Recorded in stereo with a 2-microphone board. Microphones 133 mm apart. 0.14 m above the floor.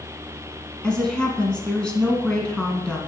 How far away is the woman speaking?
About 1.4 m.